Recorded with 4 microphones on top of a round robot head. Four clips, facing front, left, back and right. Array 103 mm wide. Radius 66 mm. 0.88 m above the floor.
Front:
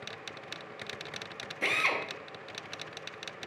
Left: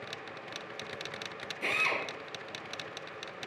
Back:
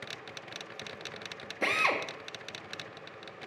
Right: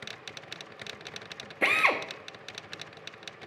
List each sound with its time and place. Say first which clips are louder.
1.6 s a drill: right 7 dB, back 2 dB; 115° right, 1.0 m